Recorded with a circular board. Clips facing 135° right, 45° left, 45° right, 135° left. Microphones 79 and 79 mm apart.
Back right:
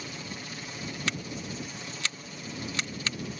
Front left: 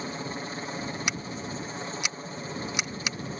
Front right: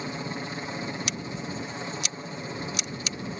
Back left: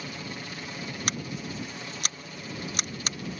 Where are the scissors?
115° left.